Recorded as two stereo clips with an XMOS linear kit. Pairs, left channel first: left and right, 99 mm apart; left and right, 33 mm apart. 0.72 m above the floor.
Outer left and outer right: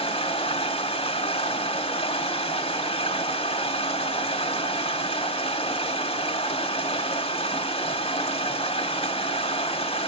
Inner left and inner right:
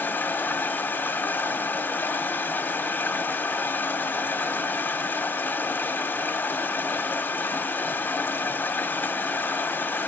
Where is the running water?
80° left, 1.4 m.